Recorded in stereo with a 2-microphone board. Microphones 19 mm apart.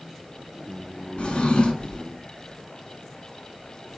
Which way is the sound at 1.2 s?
80° left.